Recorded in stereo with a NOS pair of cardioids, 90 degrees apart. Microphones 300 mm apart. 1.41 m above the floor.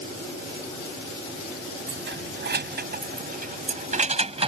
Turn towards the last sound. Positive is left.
turn(degrees=-20)